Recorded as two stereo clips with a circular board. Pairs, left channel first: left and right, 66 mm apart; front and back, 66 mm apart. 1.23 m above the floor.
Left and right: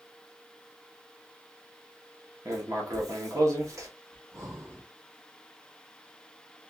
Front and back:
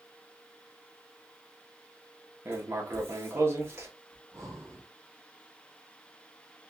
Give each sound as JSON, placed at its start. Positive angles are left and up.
{"t": 2.5, "sound": "writing", "azimuth_deg": -130, "distance_m": 1.1}
{"t": 4.1, "sound": "breathing", "azimuth_deg": -135, "distance_m": 2.5}